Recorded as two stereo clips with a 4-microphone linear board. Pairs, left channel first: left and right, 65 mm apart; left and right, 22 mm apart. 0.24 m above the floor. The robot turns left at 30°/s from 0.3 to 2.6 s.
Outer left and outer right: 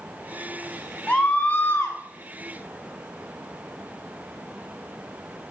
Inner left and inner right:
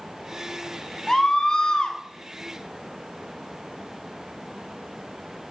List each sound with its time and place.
1.1 s a scream: 15° left (ahead or behind), 1.9 m; by 2.0 s 40° left (ahead or behind), 1.9 m